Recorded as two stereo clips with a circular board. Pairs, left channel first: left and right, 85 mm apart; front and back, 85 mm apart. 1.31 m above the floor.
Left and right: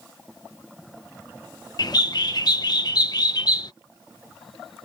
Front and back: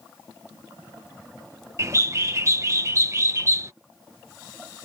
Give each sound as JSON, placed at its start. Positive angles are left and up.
{"t": 1.8, "sound": "a bird", "azimuth_deg": 125}